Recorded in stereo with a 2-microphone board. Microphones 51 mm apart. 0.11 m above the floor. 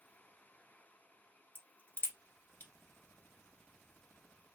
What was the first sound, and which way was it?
A crack, 40° left (ahead or behind).